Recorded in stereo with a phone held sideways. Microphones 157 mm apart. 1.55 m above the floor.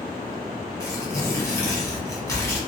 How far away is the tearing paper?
About 1.2 m.